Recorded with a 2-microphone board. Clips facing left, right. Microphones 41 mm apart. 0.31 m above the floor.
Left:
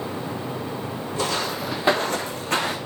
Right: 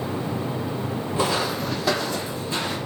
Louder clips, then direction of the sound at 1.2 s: Right 2 dB; 25° right (ahead or behind).